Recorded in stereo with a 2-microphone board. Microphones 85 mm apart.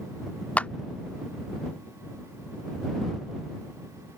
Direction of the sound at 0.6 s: 20° left (ahead or behind).